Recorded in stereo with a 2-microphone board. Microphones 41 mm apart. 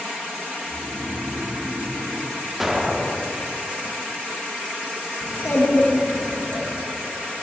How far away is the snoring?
About 2 m.